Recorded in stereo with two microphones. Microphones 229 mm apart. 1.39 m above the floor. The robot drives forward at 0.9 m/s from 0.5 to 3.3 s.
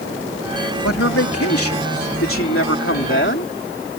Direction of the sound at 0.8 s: 85° left.